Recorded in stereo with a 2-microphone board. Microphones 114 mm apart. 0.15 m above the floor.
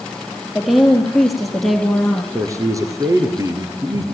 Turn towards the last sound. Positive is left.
turn(degrees=-30)  # may be behind; listen again after turning